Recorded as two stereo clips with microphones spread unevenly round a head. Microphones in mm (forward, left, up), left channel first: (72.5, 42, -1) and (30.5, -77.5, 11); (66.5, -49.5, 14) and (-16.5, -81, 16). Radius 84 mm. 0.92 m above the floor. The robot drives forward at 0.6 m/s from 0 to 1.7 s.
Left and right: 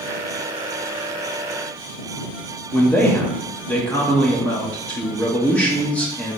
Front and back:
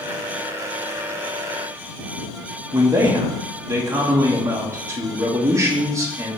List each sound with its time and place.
2.7 s a man speaking: 145° left, 0.8 m